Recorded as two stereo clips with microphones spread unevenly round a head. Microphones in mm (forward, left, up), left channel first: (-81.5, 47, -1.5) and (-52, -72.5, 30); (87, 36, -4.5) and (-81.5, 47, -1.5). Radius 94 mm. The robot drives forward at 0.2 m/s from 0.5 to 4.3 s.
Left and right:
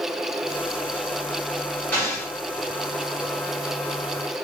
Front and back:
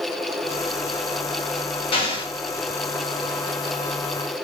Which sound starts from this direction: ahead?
An explosion, at 1.9 s.